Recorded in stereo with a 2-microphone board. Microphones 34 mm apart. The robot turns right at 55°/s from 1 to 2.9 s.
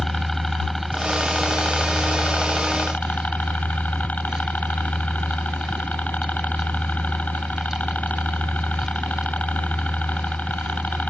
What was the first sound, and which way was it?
A helicopter, 15° left.